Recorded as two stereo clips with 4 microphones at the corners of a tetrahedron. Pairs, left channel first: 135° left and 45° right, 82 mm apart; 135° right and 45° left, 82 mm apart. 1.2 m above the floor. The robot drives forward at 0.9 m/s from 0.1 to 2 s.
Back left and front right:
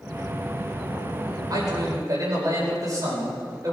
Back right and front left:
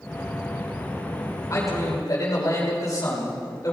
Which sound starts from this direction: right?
A man speaking, at 1.5 s.